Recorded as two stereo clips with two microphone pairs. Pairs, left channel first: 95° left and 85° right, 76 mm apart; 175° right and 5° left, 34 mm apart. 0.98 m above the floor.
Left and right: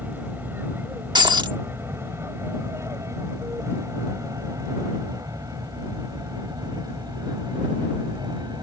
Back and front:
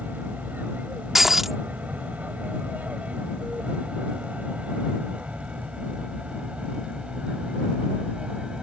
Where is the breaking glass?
75° right.